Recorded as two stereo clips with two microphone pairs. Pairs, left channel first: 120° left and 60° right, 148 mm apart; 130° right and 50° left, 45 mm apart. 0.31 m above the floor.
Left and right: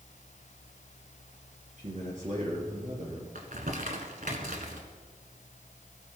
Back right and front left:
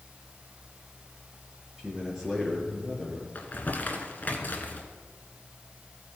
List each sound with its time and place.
1.8 s a man speaking: 30° right, 4.5 m
3.4 s crumpling: 80° right, 1.3 m